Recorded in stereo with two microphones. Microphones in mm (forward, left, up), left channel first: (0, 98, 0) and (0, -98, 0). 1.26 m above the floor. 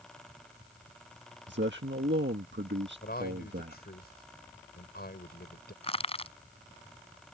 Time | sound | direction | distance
1.5 | a man speaking | 70° right (ahead or behind) | ?
3.0 | a man speaking | 55° left (ahead or behind) | ?
5.8 | crushing | 30° left (ahead or behind) | ?